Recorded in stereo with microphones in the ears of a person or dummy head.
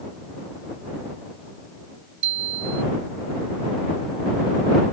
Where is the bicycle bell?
40° right (ahead or behind).